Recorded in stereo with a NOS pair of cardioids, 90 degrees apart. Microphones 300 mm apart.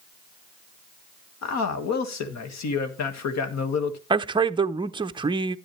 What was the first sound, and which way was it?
A man speaking, 60° left.